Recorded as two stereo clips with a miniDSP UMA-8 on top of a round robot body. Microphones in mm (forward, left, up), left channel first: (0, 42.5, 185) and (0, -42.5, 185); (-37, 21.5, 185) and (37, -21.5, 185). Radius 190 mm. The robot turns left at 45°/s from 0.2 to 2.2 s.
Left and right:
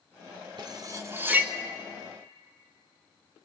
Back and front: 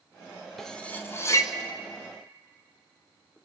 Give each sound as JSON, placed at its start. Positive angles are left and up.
{"t": 0.6, "sound": "cutlery clinking", "azimuth_deg": -125, "distance_m": 0.9}